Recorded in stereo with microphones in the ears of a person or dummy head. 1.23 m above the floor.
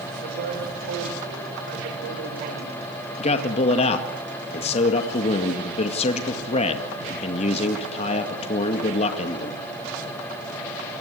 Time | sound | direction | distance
0.2 | a man speaking | 55° right (ahead or behind) | 5.5 m
3.2 | a man speaking | 45° left (ahead or behind) | 1.9 m